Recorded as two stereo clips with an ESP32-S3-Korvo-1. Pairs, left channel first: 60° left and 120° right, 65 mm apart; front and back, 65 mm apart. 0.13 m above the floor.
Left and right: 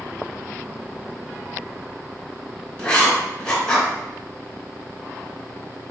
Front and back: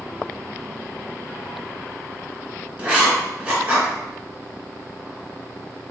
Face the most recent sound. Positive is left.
turn(degrees=125)